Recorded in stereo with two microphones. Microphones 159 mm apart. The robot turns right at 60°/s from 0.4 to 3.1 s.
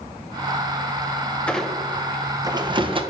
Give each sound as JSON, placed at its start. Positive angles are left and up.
{"t": 1.5, "sound": "a squeak", "side_deg": 5, "distance_m": 0.6}